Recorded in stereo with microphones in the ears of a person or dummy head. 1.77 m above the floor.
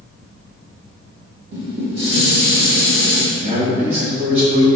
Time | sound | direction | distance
1.5 | dishes clattering | 55° right (ahead or behind) | 1.8 m
3.3 | a man speaking | 30° right (ahead or behind) | 1.2 m